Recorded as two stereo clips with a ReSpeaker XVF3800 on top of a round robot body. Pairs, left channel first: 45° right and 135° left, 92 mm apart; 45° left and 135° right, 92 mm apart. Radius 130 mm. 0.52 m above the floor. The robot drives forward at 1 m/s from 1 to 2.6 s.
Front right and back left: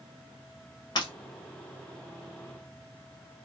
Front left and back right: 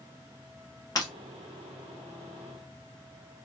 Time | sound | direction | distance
0.9 | breaking glass | 5° right | 1.9 m